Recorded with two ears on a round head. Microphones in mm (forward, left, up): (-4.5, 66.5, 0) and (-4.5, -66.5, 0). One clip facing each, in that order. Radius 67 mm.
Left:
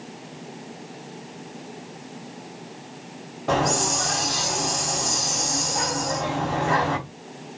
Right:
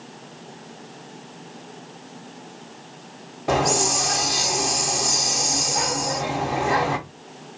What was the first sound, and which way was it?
A hiss, 10° right (ahead or behind).